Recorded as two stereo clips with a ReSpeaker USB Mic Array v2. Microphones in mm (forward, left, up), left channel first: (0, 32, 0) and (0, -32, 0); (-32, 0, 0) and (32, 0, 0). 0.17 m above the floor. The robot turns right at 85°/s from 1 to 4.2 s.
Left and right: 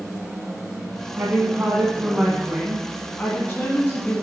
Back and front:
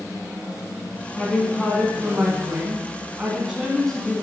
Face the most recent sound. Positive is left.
turn(degrees=130)